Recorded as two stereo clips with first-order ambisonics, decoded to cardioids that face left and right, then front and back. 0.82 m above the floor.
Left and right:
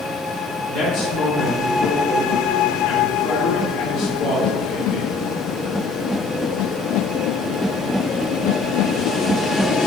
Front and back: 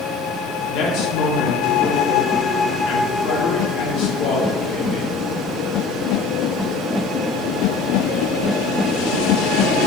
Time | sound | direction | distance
0.7 | a man speaking | 15° left | 2.0 m